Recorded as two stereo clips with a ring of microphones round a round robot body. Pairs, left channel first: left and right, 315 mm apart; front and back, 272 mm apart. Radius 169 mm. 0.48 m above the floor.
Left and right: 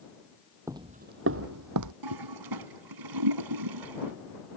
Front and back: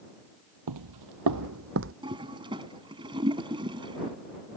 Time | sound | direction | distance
0.7 | footsteps | 170° right | ?
2.0 | a toilet flushing | 105° right | ?